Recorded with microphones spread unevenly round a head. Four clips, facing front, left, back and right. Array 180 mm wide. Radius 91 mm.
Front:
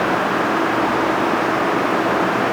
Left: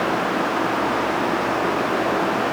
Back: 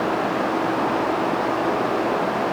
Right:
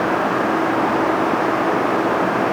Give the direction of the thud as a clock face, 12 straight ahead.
I don't hear a thud.